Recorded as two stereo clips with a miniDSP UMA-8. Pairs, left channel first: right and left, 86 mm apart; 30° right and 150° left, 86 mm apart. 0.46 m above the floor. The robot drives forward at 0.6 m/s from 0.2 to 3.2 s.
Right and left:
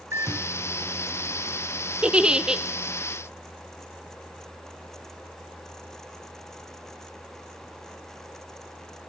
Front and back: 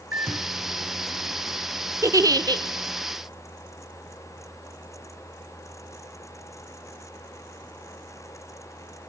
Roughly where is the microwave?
Left.